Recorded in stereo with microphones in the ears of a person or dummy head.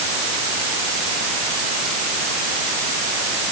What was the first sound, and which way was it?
Only background noise.